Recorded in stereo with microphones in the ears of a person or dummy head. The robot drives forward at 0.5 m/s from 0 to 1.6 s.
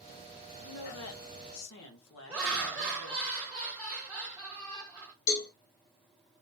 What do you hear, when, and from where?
0.6 s a woman speaking: 80° left, 0.9 m; by 3.3 s 70° left (ahead or behind), 1.0 m
2.3 s laughter: 10° right (ahead or behind), 1.3 m
5.3 s a cowbell: 75° left (ahead or behind), 1.9 m